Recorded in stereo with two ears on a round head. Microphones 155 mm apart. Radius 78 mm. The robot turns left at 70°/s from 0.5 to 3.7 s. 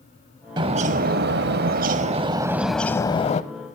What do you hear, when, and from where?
0.6 s a bird: 30° right, 0.6 m; by 3.4 s 130° left, 0.6 m